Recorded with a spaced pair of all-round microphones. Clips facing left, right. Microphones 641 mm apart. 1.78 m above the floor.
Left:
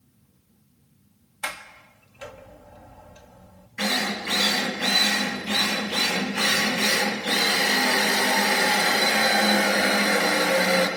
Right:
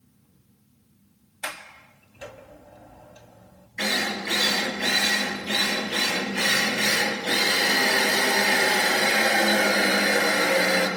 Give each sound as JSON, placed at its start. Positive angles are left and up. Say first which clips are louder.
{"t": 1.4, "sound": "a sliding door", "louder": "even", "side_deg": 30, "distance_m": 1.8}
{"t": 3.8, "sound": "a drill", "louder": "left 1 dB", "side_deg": 35, "distance_m": 5.0}